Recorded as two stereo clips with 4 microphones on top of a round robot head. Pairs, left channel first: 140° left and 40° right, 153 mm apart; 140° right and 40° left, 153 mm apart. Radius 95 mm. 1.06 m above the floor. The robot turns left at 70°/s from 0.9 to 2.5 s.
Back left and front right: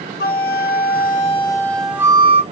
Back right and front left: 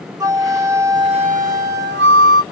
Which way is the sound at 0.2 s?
115° left.